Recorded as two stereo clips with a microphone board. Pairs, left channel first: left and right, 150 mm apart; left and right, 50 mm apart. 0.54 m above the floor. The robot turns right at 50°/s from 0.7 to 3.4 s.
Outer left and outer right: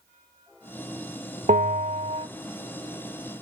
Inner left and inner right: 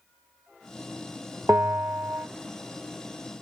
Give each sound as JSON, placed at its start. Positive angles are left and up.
{"t": 1.5, "sound": "a bell", "azimuth_deg": -90, "distance_m": 1.1}